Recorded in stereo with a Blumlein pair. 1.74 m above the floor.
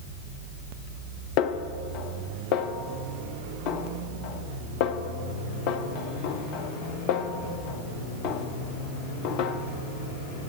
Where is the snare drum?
40° left, 0.7 m.